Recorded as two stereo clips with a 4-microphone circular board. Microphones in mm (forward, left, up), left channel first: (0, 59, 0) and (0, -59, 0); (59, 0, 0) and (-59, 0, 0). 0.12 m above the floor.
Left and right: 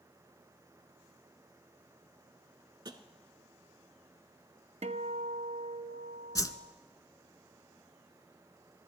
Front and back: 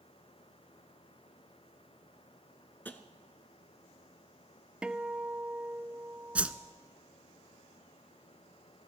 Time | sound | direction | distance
2.9 | tapping | 65° right | 0.8 m
4.8 | a guitar | 100° right | 0.5 m
6.3 | a whoosh | 110° left | 0.5 m